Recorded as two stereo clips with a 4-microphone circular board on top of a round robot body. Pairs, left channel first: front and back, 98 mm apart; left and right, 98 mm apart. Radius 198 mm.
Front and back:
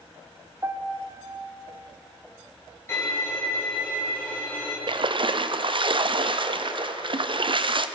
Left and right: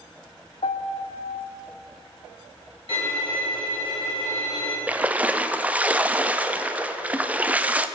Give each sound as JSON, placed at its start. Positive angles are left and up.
{"t": 0.6, "sound": "a piano", "azimuth_deg": 115, "distance_m": 0.5}
{"t": 2.9, "sound": "a violin", "azimuth_deg": 60, "distance_m": 3.5}
{"t": 4.9, "sound": "a splash", "azimuth_deg": -165, "distance_m": 0.7}